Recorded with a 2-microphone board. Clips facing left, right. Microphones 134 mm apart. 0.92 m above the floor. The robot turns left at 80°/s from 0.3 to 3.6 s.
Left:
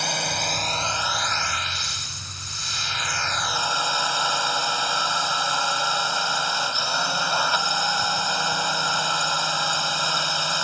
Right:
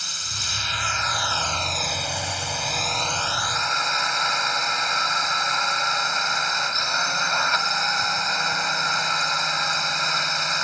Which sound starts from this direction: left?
A drone, at 0.0 s.